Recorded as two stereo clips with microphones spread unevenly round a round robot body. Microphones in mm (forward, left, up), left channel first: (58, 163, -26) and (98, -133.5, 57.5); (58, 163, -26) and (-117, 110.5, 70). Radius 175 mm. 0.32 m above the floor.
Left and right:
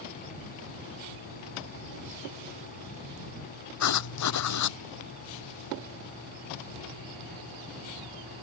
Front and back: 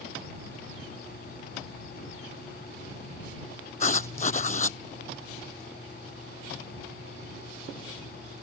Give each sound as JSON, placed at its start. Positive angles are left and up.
{"t": 3.8, "sound": "writing", "azimuth_deg": 65}